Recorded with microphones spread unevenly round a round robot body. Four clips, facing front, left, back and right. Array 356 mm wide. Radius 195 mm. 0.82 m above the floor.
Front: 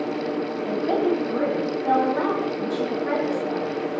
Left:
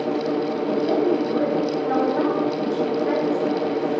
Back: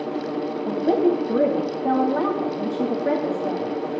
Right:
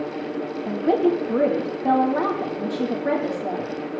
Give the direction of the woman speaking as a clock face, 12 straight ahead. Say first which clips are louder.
Right 2 dB, back 3 dB; 4 o'clock.